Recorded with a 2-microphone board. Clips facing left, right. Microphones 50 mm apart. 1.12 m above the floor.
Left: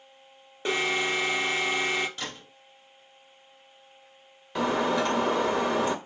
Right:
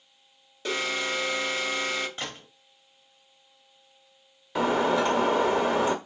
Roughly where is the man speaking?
I don't hear a man speaking.